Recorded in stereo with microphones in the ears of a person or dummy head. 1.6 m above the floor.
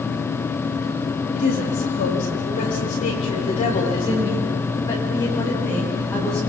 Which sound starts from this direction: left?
A woman speaking, at 1.3 s.